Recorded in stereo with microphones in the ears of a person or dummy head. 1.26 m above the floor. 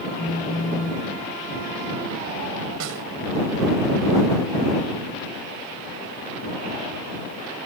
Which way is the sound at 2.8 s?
65° right (ahead or behind).